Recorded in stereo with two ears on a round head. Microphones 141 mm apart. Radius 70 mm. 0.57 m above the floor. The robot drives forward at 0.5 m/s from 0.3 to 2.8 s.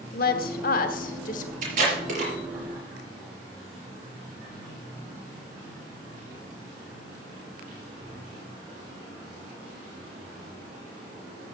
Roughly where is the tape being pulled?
Right.